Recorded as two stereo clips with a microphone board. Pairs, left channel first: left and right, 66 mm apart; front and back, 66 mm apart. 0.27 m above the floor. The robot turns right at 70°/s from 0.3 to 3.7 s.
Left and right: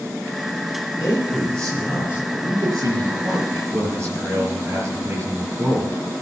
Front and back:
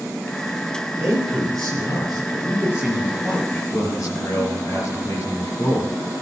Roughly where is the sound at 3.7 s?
Ahead right.